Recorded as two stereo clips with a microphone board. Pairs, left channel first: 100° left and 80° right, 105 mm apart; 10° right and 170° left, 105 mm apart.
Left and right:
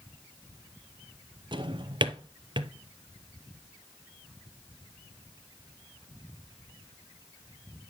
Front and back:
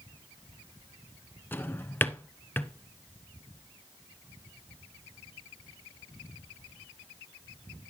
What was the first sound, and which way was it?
A drawer, 80° right.